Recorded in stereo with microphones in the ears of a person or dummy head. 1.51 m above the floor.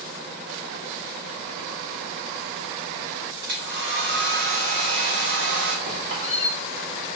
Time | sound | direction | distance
3.4 | a hair dryer | 65° right (ahead or behind) | 1.4 m
5.9 | a squeak | 45° right (ahead or behind) | 2.5 m